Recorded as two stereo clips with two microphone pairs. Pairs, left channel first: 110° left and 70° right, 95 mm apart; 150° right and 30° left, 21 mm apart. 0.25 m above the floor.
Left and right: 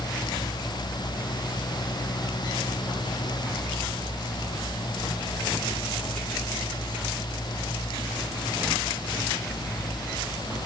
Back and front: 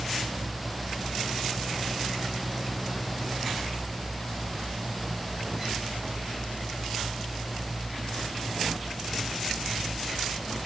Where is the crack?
No crack in this recording.